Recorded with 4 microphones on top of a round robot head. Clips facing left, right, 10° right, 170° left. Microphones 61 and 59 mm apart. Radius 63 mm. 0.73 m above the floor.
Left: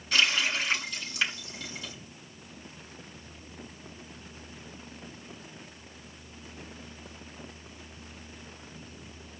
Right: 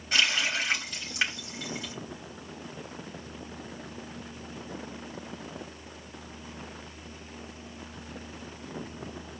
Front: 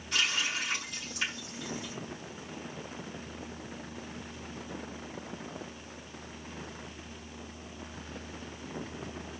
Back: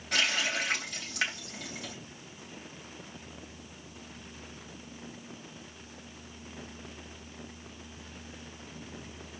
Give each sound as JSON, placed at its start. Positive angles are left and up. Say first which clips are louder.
{"t": 0.1, "sound": "a running tap", "louder": "even, back 2 dB", "azimuth_deg": -155, "distance_m": 3.5}